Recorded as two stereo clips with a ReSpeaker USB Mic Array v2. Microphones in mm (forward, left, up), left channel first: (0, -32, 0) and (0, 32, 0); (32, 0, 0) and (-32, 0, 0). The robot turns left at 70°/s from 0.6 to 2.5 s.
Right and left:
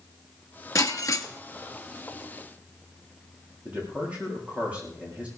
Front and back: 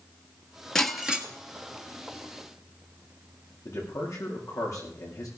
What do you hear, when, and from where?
0.8 s breaking glass: 80° right, 1.6 m; by 1.3 s 115° right, 1.6 m
3.6 s a man speaking: 25° left, 8.5 m